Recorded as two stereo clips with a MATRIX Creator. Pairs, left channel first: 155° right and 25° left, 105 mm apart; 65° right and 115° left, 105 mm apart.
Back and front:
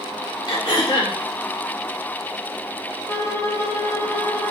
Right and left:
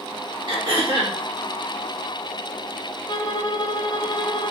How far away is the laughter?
I don't hear laughter.